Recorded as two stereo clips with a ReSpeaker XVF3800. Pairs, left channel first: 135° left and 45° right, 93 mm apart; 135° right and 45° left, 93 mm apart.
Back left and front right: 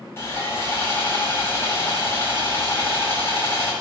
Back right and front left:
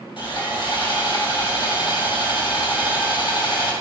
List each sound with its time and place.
0.2 s sawing: 165° right, 4 m